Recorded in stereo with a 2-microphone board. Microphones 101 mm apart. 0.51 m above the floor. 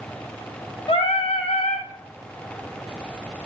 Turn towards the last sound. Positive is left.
turn(degrees=85)